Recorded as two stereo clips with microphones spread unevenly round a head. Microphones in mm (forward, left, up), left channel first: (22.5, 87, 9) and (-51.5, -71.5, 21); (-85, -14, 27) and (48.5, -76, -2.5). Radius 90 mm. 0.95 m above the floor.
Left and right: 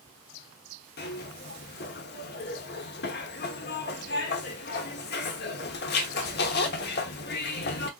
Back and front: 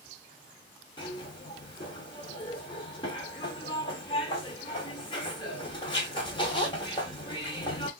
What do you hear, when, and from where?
1.0 s a zipper: 95° left, 1.0 m